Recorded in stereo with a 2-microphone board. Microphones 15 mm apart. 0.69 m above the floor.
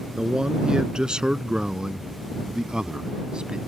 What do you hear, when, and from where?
0.1 s a man speaking: 60° right (ahead or behind); by 3.6 s 85° right